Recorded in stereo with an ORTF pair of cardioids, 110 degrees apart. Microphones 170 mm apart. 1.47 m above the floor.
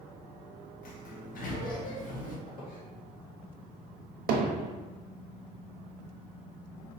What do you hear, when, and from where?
0.8 s a sliding door: 55° left, 1.1 m
2.5 s a squeak: 55° left, 1.8 m
4.3 s hammering: 65° right, 0.8 m